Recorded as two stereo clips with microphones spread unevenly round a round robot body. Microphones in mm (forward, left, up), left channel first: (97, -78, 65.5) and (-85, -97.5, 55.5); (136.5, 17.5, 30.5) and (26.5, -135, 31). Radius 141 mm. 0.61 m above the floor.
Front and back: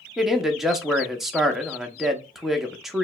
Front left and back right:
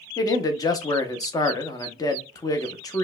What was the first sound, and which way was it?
A man speaking, 105° left.